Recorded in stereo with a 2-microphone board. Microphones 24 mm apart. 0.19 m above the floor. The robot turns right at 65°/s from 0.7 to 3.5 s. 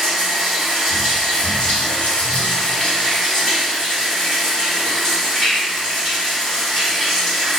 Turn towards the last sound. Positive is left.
turn(degrees=180)